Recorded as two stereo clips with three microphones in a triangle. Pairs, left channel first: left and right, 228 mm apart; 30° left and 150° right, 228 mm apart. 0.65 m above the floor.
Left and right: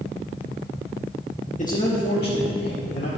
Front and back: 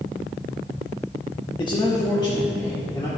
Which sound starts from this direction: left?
A man speaking, at 1.6 s.